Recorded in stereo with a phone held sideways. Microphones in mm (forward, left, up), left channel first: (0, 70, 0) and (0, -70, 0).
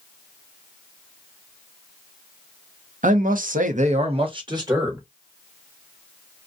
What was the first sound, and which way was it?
A man speaking, 65° right (ahead or behind).